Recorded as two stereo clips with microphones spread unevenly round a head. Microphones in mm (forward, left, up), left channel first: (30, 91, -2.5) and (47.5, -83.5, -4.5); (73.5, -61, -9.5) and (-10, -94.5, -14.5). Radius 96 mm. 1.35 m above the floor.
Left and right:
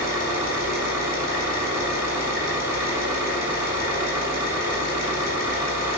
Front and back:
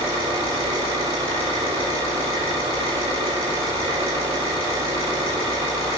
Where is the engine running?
160° right, 3 m.